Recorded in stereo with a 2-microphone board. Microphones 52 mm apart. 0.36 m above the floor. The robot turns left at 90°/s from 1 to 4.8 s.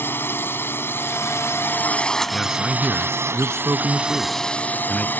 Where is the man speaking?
25° left; by 5.1 s 160° left.